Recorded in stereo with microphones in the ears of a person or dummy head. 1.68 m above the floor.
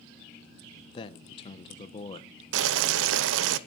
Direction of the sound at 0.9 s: 25° left (ahead or behind).